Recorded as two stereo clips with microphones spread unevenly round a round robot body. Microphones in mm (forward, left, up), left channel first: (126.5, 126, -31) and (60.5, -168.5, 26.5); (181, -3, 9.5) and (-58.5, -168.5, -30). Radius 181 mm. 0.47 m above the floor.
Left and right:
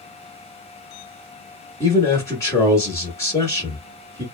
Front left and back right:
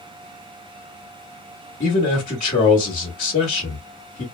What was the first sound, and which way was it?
A man speaking, 75° left.